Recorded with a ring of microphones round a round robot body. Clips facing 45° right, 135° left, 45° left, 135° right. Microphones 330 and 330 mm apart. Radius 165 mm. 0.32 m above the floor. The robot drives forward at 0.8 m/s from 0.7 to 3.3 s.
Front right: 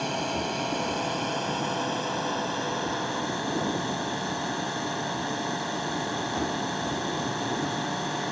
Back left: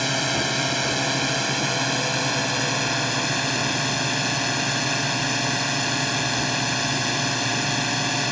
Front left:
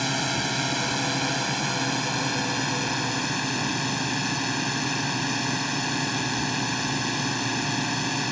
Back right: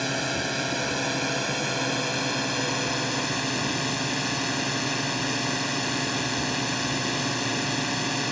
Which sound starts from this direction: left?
A drone, at 0.0 s.